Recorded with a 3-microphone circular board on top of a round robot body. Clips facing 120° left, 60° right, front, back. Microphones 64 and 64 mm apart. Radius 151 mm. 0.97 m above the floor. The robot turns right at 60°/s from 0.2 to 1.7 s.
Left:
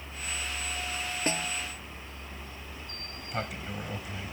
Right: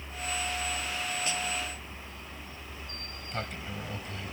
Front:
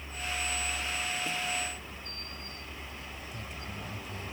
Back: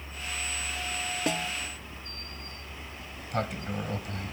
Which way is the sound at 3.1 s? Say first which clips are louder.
Left 2 dB, back 10 dB; 155° right.